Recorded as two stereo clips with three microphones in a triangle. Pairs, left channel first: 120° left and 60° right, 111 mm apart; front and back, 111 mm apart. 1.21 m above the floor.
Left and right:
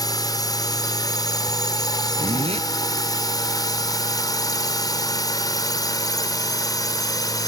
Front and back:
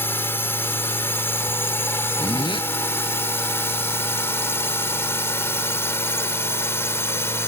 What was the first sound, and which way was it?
A drone, 70° left.